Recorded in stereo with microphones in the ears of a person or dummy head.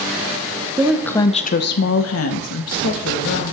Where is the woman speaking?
10° right (ahead or behind), 0.6 m; by 3.5 s 80° left, 1.8 m.